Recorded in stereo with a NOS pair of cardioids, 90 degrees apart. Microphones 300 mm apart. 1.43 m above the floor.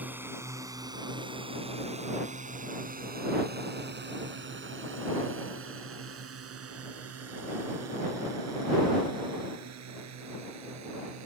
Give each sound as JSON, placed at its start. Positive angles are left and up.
{"t": 0.0, "sound": "a drone", "azimuth_deg": -5}